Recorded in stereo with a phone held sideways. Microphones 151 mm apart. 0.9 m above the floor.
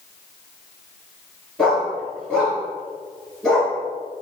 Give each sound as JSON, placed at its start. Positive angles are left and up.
{"t": 1.6, "sound": "a dog barking", "side_deg": 5, "distance_m": 3.0}